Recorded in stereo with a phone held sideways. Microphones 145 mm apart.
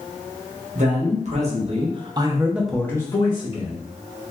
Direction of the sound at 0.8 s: 55° right (ahead or behind).